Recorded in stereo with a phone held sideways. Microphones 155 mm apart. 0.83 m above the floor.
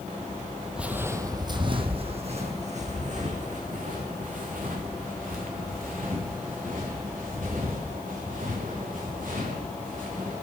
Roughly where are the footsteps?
Centre.